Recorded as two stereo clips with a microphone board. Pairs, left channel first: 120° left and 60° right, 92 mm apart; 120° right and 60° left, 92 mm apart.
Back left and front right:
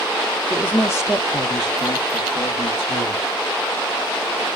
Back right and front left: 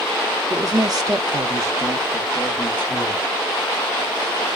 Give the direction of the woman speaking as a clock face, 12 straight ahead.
10 o'clock.